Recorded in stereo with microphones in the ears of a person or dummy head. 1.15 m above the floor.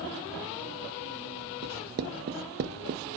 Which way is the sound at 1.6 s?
45° right (ahead or behind).